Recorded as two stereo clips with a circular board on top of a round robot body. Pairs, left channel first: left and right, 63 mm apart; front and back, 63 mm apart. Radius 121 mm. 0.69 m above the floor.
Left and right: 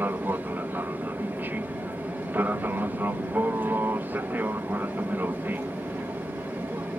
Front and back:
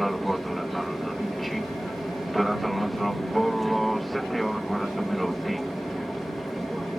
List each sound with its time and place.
0.0 s an aircraft: 90° right